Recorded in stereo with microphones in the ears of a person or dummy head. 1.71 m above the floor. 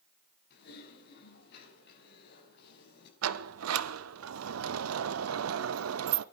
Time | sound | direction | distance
0.5 | typing on a keyboard | 55° left (ahead or behind) | 5.5 m
3.2 | a sliding door | 80° right | 0.6 m